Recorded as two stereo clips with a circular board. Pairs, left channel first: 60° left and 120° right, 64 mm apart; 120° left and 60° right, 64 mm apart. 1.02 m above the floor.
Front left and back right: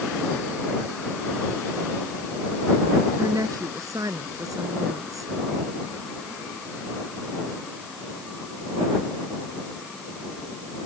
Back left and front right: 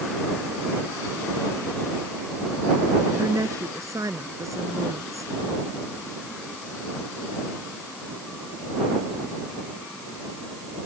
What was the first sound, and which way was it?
A woman speaking, 95° right.